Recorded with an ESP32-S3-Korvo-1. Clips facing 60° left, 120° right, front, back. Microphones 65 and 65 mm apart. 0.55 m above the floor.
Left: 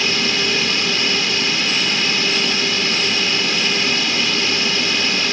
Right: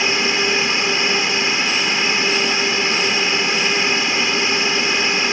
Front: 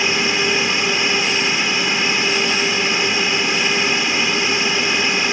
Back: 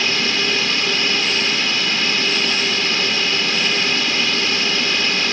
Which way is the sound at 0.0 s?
65° right.